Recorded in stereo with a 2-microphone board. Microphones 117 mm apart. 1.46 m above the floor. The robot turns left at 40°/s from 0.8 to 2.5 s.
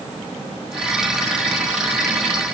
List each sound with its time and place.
Only background noise.